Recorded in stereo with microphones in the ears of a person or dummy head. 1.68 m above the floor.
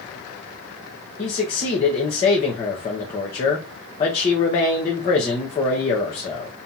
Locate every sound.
1.2 s a man speaking: 25° left (ahead or behind), 0.7 m